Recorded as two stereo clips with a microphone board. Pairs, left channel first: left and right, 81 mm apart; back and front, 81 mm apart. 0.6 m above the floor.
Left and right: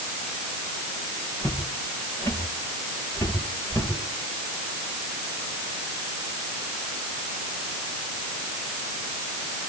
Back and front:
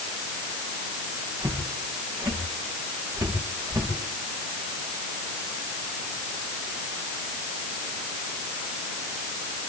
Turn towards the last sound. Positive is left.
turn(degrees=45)